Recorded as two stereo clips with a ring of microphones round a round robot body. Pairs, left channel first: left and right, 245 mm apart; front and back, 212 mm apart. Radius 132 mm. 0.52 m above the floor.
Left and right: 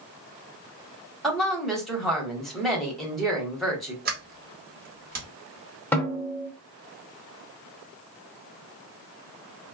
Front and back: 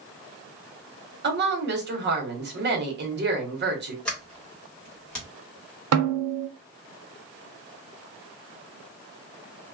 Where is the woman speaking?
Straight behind, 1.2 m.